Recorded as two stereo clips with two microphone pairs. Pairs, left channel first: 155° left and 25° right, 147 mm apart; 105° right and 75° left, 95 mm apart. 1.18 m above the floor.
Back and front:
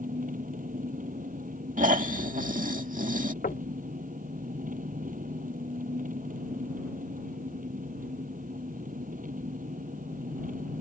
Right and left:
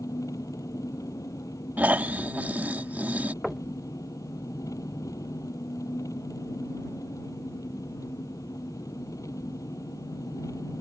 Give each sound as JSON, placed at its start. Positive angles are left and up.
{"t": 0.0, "sound": "an engine running", "azimuth_deg": -50}
{"t": 1.8, "sound": "snoring", "azimuth_deg": 0}
{"t": 3.4, "sound": "knocking", "azimuth_deg": 165}